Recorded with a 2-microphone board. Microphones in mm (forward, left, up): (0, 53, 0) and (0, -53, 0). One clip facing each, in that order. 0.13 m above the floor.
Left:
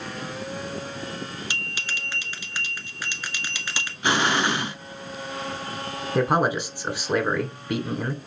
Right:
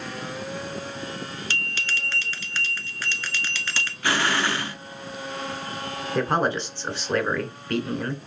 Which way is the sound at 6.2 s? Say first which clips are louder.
Left 2 dB; 10° left (ahead or behind).